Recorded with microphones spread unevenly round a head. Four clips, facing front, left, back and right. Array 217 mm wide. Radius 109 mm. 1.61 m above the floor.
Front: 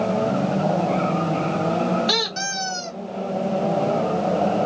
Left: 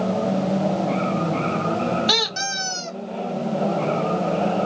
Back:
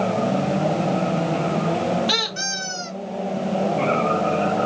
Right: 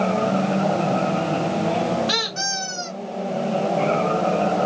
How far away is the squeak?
About 1.2 m.